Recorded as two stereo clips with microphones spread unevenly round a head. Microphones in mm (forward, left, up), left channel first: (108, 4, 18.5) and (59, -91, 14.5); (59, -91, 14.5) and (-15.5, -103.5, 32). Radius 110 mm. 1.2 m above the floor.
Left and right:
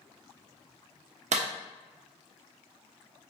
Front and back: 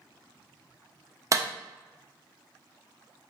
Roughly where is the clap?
Behind right.